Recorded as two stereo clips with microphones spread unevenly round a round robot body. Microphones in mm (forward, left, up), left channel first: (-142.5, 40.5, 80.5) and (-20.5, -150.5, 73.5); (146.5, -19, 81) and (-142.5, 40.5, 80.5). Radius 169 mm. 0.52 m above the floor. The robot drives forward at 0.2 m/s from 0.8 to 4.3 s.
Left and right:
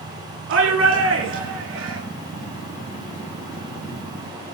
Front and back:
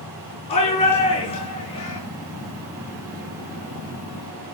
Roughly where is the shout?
Right.